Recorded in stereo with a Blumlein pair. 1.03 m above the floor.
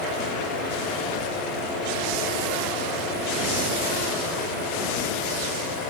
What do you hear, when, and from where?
0.0 s a fan: 45° left, 4 m